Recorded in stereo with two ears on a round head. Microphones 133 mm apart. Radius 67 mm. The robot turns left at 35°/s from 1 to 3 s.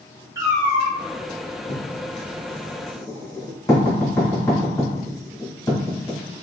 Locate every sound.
0.3 s a cat meowing: 25° right (ahead or behind), 1.0 m
1.7 s writing: 65° left (ahead or behind), 1.8 m; by 6.2 s 20° left (ahead or behind), 1.8 m